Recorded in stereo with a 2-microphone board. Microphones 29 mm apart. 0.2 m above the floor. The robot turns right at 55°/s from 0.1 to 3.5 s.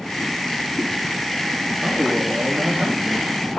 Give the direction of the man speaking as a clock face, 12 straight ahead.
4 o'clock.